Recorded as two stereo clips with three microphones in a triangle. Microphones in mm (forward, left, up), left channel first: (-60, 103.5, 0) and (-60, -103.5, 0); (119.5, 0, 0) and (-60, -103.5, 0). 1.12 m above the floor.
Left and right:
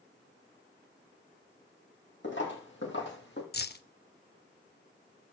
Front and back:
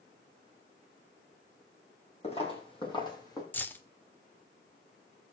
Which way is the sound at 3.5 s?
110° left.